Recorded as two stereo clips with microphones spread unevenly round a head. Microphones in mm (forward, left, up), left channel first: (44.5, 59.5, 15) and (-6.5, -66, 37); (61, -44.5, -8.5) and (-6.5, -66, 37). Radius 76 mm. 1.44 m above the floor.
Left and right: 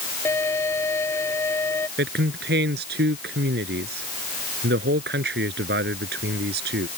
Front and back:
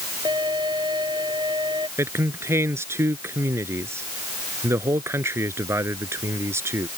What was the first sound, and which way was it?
A violin, 140° left.